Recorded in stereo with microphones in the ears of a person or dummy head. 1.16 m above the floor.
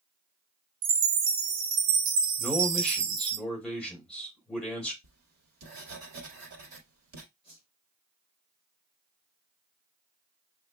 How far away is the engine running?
I don't hear an engine running.